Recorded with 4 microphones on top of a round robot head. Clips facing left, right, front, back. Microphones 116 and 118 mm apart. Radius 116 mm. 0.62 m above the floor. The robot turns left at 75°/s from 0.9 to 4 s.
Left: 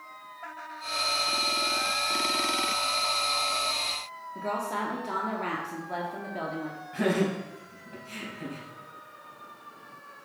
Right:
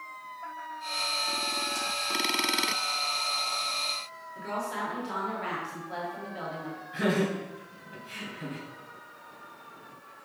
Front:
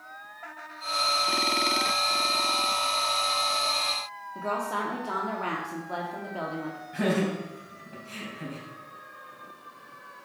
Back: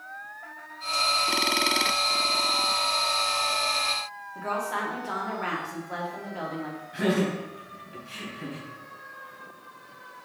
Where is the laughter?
45° left, 4 m.